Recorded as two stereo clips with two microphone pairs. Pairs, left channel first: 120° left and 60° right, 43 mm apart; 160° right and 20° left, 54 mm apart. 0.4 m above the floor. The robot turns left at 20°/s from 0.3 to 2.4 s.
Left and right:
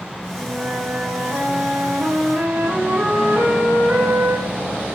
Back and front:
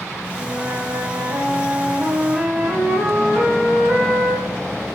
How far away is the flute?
About 6 m.